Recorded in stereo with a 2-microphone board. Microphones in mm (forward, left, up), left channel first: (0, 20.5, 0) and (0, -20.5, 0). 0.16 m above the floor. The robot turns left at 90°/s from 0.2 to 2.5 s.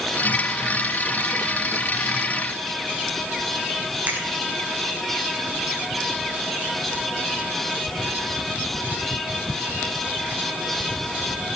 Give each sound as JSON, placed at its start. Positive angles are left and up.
{"t": 4.1, "sound": "a finger snap", "side_deg": -40, "distance_m": 5.5}